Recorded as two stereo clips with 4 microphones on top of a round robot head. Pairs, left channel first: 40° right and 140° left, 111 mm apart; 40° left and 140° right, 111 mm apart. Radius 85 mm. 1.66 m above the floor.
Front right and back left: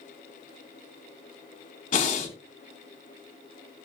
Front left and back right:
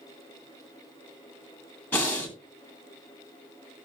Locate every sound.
1.9 s breathing: 35° right, 2.5 m